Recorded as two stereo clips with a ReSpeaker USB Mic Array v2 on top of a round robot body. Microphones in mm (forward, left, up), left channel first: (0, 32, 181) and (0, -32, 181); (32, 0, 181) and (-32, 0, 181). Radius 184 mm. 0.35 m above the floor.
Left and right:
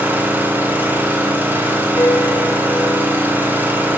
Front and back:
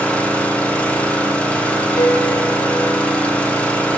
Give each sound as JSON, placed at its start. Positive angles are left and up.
{"t": 0.0, "sound": "an engine running", "azimuth_deg": -55, "distance_m": 1.2}
{"t": 2.0, "sound": "a piano", "azimuth_deg": 35, "distance_m": 0.8}